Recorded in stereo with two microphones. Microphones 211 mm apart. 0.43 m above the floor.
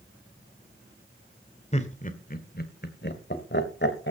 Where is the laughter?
30° left (ahead or behind), 1.8 m; by 4.1 s 60° left (ahead or behind), 3 m.